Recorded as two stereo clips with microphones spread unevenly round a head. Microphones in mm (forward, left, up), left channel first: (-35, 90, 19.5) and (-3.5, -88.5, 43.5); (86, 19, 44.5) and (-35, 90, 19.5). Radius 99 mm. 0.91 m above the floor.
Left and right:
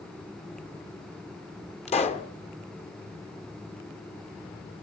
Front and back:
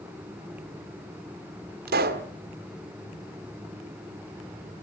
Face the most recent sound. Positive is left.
turn(degrees=155)